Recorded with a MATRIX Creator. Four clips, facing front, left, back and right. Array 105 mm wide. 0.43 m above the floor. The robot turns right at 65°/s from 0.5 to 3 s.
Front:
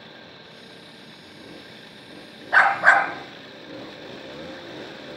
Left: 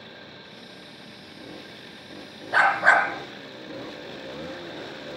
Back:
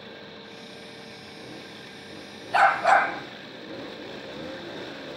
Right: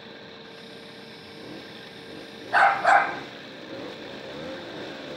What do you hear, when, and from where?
2.5 s a dog barking: 5° right, 2 m; by 3.1 s 30° left, 2 m